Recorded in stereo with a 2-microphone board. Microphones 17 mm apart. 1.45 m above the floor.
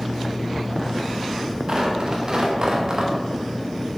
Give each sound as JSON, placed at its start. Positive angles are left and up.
{"t": 1.7, "sound": "tearing paper", "side_deg": -45, "distance_m": 0.9}